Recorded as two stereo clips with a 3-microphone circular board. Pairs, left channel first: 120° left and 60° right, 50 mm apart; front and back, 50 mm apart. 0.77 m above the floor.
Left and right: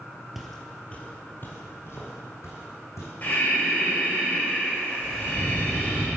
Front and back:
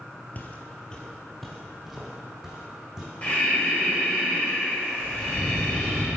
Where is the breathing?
65° left, 2.5 m.